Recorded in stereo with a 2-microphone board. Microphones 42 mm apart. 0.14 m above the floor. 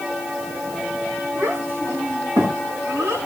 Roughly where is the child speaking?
Right.